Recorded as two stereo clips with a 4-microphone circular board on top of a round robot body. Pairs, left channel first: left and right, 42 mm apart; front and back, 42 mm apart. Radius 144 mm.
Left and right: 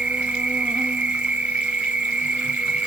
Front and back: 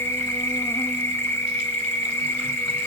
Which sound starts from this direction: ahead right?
An insect, at 0.0 s.